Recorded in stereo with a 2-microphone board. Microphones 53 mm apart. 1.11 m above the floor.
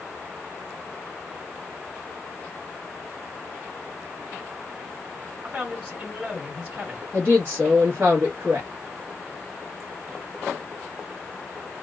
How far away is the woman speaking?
About 1.1 m.